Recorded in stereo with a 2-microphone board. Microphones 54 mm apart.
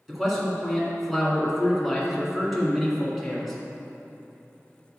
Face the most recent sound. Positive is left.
turn(degrees=0)  # may be behind; listen again after turning